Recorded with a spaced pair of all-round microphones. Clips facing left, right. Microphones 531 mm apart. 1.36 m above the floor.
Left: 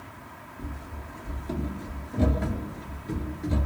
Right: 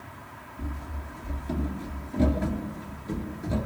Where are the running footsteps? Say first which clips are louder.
Right 2 dB; 30° right (ahead or behind), 1.6 m; by 3.7 s 25° left (ahead or behind), 1.6 m.